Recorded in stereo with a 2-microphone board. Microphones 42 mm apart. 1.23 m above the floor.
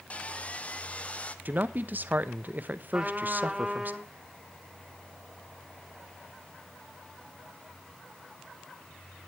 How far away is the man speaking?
About 1.0 m.